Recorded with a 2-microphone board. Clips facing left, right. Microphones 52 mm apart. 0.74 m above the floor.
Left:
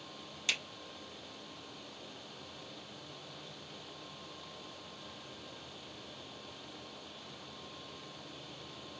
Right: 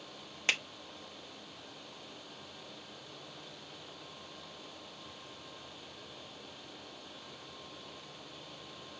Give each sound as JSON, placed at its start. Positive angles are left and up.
{"t": 0.5, "sound": "a finger snap", "side_deg": -40, "distance_m": 0.9}